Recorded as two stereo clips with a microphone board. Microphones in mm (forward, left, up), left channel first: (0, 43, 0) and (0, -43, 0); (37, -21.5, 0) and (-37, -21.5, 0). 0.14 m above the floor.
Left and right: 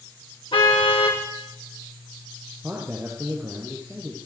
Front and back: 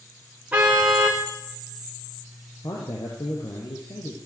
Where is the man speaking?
20° right, 4.5 m.